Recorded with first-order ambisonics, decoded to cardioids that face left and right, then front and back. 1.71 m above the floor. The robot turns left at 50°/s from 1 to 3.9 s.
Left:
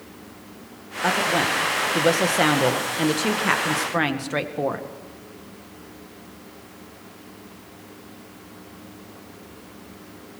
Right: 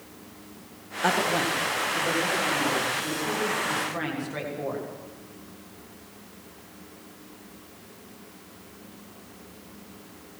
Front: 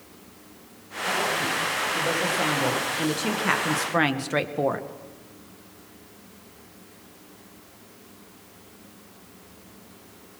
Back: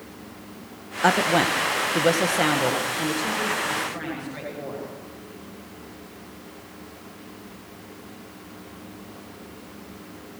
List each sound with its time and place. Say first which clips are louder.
1.0 s a woman speaking: left 3 dB, back 6 dB; straight behind, 1.8 m; by 4.9 s 35° left, 1.8 m